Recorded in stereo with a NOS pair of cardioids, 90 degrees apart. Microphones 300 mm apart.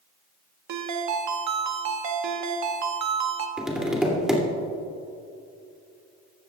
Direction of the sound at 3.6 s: Straight ahead.